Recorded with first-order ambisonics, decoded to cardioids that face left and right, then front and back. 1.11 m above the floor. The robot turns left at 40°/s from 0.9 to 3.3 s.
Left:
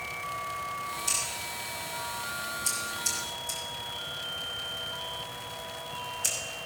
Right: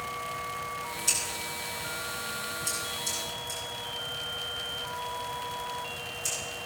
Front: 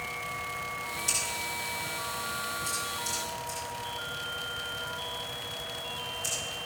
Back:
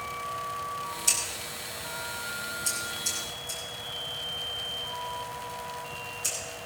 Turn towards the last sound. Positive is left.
turn(degrees=95)